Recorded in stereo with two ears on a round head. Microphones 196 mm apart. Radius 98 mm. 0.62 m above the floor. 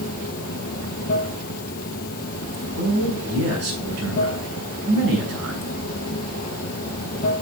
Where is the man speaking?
55° right (ahead or behind), 6.5 m.